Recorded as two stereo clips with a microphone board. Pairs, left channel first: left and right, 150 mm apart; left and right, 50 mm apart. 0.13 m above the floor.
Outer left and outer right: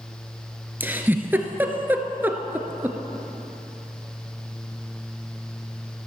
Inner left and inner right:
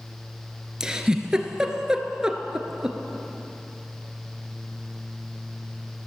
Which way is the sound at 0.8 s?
15° right (ahead or behind).